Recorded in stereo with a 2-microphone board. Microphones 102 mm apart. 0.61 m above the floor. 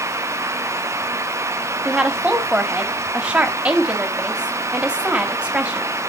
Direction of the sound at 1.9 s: 10° right (ahead or behind).